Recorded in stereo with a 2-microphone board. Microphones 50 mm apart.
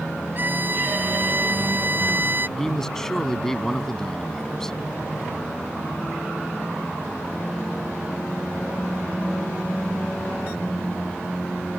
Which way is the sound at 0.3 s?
40° right (ahead or behind).